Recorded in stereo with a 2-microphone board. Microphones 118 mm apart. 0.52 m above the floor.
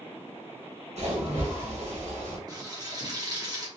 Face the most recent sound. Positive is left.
turn(degrees=-35)  # may be behind; listen again after turning